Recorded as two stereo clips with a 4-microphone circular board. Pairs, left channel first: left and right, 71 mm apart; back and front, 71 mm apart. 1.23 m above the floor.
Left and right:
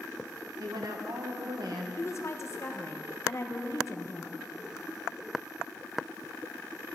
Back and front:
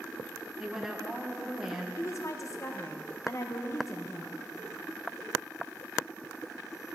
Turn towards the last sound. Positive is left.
turn(degrees=135)